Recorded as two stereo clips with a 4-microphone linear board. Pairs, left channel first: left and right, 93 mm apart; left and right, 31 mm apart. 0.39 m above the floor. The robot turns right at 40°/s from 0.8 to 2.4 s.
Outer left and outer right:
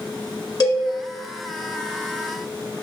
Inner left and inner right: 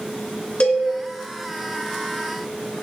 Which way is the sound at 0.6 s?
50° left (ahead or behind).